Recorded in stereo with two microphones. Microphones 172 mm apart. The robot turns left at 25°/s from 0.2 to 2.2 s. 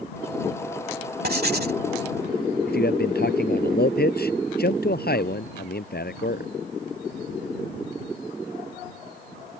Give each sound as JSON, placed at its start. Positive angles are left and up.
{"t": 1.2, "sound": "writing", "side_deg": -60}
{"t": 2.7, "sound": "a man speaking", "side_deg": 65}